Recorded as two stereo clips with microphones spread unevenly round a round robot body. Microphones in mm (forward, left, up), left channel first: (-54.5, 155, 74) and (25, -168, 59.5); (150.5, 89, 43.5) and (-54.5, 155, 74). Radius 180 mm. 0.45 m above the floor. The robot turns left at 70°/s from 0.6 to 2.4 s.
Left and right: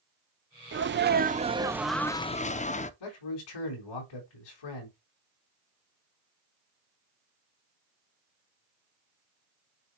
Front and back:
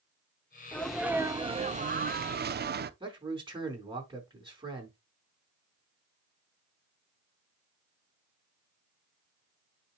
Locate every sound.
0.7 s a sneeze: 80° right, 0.8 m; by 2.9 s 165° left, 0.8 m
3.0 s a man speaking: 90° left, 4.5 m